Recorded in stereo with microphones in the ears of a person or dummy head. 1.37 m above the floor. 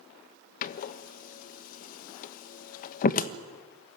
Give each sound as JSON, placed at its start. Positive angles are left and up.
{"t": 0.6, "sound": "a door slam", "side_deg": 55, "distance_m": 1.1}